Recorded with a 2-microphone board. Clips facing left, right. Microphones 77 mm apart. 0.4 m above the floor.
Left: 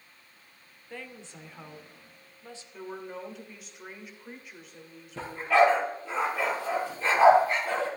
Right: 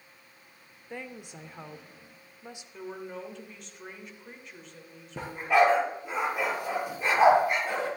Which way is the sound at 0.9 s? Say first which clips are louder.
Right 2 dB; 15° right (ahead or behind).